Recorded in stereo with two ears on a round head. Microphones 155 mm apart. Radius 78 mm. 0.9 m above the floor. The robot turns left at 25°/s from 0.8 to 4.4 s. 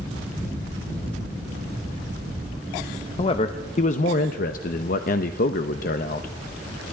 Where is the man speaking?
145° left, 0.6 m; by 6.3 s 115° left, 0.6 m.